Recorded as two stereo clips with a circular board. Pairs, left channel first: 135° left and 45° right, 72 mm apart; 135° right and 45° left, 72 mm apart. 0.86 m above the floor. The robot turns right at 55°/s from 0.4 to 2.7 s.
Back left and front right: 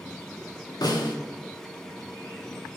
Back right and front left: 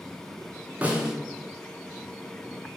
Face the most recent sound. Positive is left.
turn(degrees=-145)